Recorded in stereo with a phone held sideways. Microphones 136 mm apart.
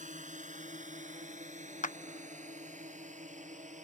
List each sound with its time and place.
0.0 s a drone: 65° right (ahead or behind); by 3.9 s 60° right (ahead or behind)
1.8 s a clap: 70° left (ahead or behind)